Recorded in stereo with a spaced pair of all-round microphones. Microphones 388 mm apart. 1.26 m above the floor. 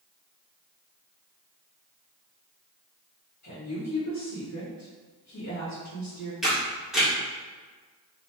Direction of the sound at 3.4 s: 45° left (ahead or behind).